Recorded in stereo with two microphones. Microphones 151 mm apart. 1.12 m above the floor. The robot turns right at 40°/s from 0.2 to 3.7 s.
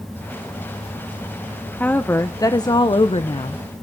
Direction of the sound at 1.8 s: 15° left.